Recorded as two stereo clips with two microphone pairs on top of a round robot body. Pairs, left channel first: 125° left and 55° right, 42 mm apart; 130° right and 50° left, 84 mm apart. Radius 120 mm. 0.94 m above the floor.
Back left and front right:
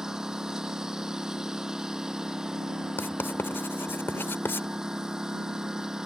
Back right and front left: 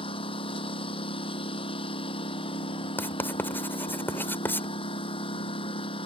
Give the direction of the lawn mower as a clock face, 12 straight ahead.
4 o'clock.